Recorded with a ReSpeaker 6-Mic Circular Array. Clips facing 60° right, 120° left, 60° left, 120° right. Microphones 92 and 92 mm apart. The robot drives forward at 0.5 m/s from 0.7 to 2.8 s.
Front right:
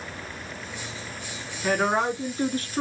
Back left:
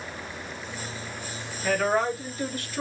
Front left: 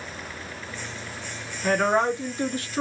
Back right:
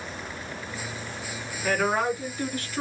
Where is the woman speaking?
Straight ahead, 2.0 m.